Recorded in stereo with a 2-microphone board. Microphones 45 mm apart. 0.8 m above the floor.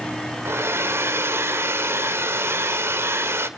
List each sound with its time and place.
0.5 s a hair dryer: 80° right, 1.7 m